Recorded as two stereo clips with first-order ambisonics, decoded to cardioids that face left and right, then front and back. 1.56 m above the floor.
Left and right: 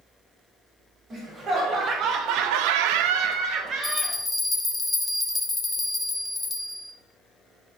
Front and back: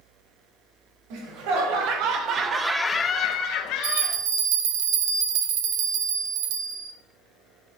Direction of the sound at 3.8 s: 175° left.